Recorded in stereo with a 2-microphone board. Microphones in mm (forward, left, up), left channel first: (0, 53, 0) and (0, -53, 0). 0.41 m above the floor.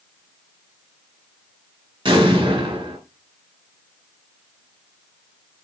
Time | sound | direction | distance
2.0 | an explosion | 45° right (ahead or behind) | 4 m